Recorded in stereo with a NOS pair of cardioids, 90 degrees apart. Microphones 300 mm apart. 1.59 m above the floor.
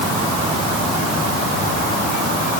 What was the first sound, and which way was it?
Only background noise.